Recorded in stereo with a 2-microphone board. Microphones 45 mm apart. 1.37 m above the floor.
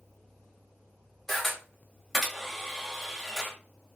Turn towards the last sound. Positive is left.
turn(degrees=10)  # may be behind; listen again after turning